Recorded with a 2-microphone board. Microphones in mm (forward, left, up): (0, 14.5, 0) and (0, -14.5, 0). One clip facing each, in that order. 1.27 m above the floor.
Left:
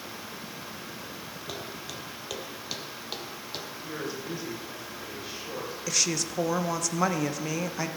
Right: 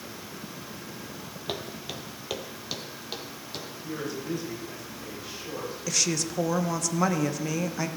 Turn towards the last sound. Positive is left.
turn(degrees=0)  # may be behind; listen again after turning